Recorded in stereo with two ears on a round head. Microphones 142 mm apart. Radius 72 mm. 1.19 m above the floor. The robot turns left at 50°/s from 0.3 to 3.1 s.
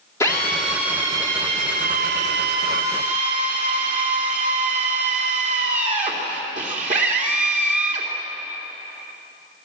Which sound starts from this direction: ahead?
A drill, at 0.2 s.